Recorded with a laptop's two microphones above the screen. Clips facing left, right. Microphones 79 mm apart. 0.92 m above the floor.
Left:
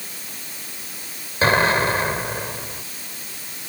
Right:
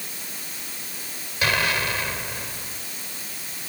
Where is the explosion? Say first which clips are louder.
Left 7 dB; 35° left (ahead or behind).